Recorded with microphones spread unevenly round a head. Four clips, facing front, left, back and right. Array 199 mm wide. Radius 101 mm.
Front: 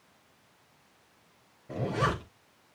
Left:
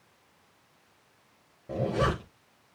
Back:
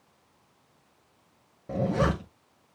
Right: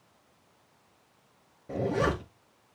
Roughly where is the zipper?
Behind.